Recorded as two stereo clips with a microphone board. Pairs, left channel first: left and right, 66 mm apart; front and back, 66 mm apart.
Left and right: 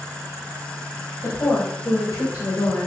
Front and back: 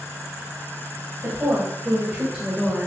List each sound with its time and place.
1.2 s a woman speaking: 120° left, 3.5 m; by 2.9 s 90° left, 2.5 m